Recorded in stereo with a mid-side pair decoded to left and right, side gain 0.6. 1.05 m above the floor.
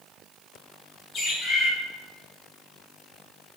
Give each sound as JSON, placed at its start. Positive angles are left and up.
{"t": 1.1, "sound": "a bird", "azimuth_deg": 35, "distance_m": 2.0}